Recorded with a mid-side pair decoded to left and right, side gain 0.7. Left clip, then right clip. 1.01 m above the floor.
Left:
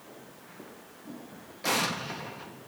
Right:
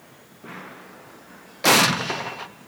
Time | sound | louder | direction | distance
1.6 | an explosion | right 11 dB | 50° right | 0.6 m